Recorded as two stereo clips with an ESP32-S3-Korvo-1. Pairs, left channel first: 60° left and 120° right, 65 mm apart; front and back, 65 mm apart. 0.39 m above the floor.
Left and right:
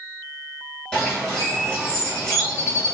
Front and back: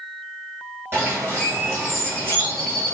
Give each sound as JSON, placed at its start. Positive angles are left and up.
{"t": 0.9, "sound": "a bird", "azimuth_deg": 135, "distance_m": 1.6}